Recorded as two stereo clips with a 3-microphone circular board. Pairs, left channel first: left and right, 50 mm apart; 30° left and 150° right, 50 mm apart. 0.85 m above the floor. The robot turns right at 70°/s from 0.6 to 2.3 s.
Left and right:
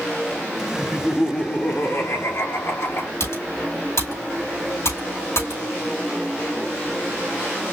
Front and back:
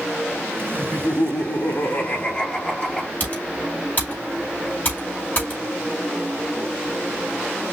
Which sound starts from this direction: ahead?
Laughter, at 0.8 s.